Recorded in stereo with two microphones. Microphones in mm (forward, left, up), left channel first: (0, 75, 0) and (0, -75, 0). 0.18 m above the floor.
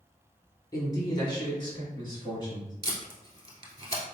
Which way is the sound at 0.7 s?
25° left (ahead or behind).